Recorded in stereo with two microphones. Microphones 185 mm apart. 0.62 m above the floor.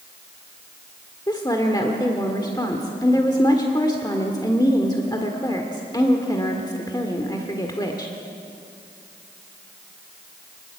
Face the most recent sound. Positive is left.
turn(degrees=20)  # may be behind; listen again after turning